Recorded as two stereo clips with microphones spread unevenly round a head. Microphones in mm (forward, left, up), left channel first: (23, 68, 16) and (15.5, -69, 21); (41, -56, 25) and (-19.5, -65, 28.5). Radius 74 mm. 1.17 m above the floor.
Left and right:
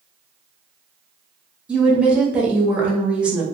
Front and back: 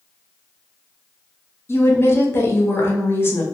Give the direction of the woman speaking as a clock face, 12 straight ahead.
12 o'clock.